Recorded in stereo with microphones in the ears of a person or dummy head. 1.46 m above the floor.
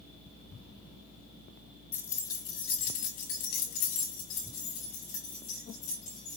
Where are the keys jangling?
10° left (ahead or behind), 0.9 m; by 6.4 s 40° left (ahead or behind), 2.5 m.